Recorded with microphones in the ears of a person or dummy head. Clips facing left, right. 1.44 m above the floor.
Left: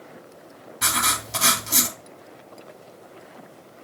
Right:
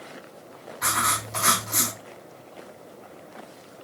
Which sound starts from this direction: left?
Writing, at 0.8 s.